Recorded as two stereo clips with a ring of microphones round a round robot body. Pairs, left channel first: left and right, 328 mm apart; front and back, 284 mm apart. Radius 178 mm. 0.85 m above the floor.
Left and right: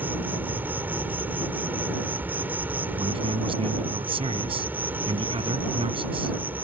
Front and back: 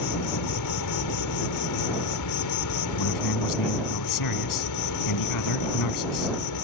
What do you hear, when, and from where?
0.0 s an insect: 5° right
3.0 s a man speaking: 15° right